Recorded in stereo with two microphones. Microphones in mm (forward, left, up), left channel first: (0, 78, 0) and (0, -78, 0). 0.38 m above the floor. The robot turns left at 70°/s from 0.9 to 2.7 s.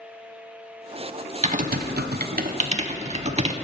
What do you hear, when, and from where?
1.4 s typing on a keyboard: 45° right (ahead or behind), 0.5 m